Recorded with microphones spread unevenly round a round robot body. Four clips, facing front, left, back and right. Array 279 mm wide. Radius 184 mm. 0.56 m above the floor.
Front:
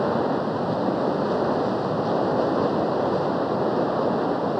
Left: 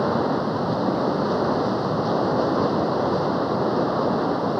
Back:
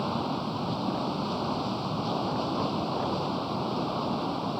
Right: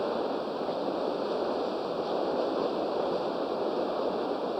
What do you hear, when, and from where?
0.0 s running water: 50° left